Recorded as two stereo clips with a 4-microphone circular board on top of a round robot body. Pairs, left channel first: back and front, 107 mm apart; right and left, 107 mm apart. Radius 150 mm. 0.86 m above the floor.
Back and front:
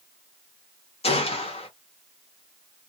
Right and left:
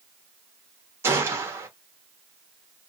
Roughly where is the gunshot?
Behind left.